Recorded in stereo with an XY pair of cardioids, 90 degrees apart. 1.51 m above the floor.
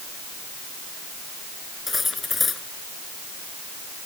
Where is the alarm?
No alarm in this recording.